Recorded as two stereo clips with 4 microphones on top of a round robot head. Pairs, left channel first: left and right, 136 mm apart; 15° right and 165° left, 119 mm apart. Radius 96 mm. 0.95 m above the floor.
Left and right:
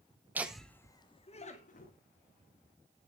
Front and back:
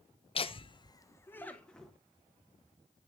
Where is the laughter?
15° right, 0.9 m; by 1.9 s 75° left, 1.5 m.